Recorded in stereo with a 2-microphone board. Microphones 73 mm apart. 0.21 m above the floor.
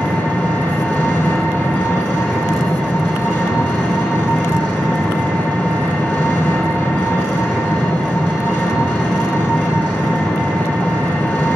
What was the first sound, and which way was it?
An engine running, 25° left (ahead or behind).